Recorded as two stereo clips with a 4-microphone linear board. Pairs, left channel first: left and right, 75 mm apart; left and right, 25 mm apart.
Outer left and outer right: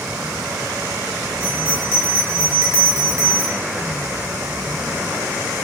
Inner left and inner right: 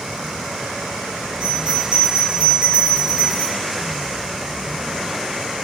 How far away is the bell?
About 1.8 m.